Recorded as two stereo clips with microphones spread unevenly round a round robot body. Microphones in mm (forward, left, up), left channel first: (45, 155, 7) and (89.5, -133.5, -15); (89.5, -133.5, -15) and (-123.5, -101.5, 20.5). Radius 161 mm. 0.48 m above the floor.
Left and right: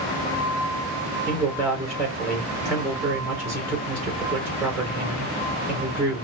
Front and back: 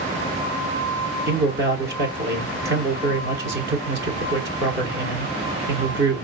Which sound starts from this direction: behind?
A man speaking, at 1.3 s.